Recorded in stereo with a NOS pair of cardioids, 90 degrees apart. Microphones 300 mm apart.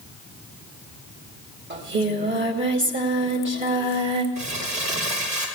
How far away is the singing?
About 2.5 m.